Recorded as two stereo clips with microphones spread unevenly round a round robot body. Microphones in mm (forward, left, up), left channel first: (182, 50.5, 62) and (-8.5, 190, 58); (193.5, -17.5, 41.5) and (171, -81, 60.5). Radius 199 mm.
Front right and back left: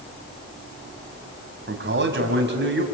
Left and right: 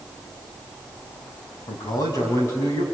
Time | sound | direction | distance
1.7 | a man speaking | 105° left | 3 m